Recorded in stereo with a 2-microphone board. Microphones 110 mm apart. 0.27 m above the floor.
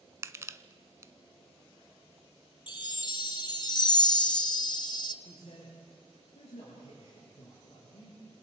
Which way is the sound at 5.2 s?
75° left (ahead or behind).